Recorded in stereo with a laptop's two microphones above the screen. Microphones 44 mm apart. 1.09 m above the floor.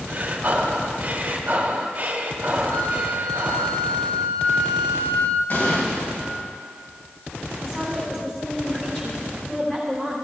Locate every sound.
0.1 s breathing: 40° right (ahead or behind), 0.8 m
2.7 s a flute: 70° left (ahead or behind), 1.7 m
5.5 s an explosion: 55° left (ahead or behind), 3 m
7.6 s a woman speaking: 25° left (ahead or behind), 3.5 m